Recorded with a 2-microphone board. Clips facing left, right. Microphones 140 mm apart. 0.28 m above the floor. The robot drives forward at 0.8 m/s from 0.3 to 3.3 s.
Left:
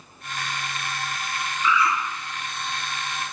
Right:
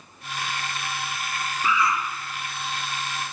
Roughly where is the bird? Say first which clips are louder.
Left 1 dB; right.